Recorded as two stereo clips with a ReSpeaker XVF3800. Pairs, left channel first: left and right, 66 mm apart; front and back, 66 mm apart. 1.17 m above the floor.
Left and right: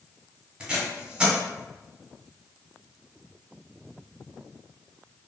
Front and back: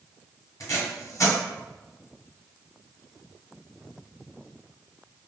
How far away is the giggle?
I don't hear a giggle.